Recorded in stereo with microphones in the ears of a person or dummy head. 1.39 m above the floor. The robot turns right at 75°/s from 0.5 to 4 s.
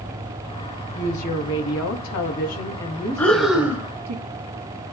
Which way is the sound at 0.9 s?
25° left.